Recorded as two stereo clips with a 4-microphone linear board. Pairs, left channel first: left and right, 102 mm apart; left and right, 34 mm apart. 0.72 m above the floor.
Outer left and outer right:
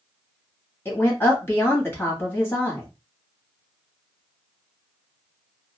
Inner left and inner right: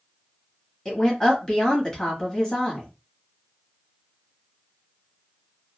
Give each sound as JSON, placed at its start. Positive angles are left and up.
{"t": 0.8, "sound": "a woman speaking", "side_deg": 25, "distance_m": 1.0}